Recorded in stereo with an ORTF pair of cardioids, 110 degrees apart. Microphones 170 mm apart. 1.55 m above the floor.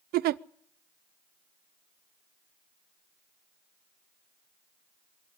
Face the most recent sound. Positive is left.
turn(degrees=-65)